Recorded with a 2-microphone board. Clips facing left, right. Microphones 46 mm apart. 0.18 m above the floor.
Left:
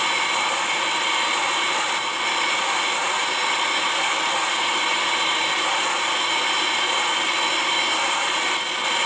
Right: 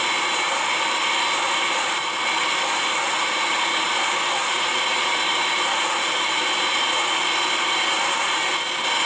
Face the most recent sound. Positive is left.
No sound to turn to.